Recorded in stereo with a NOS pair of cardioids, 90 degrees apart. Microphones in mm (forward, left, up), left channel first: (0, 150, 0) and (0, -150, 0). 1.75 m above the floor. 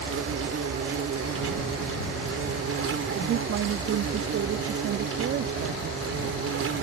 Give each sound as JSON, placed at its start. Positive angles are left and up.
{"t": 0.0, "sound": "an insect", "azimuth_deg": -50}
{"t": 3.1, "sound": "a woman speaking", "azimuth_deg": -45}